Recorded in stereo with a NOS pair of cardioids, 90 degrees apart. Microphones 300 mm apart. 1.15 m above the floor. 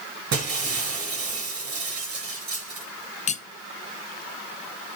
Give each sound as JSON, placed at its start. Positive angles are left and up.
{"t": 0.3, "sound": "breaking glass", "azimuth_deg": -65, "distance_m": 5.0}
{"t": 3.3, "sound": "cutlery clinking", "azimuth_deg": 25, "distance_m": 0.5}